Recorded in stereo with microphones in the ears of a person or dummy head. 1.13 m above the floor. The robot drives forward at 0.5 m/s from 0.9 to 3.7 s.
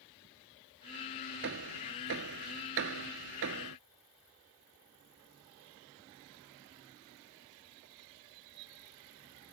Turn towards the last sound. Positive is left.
turn(degrees=-70)  # may be behind; listen again after turning